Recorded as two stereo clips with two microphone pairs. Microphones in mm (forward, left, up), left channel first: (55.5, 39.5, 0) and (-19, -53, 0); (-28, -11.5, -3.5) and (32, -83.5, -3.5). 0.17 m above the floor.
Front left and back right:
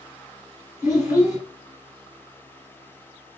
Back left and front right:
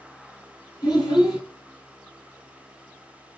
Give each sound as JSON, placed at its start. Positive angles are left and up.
{"t": 0.8, "sound": "a child speaking", "azimuth_deg": 165, "distance_m": 1.6}